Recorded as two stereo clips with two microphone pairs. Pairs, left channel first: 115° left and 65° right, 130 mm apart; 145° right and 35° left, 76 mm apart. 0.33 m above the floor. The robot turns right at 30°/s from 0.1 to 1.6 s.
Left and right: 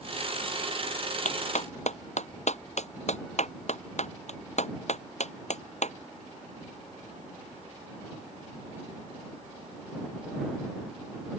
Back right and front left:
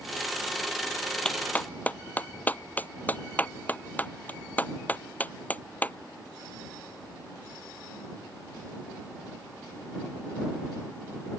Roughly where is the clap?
Behind left.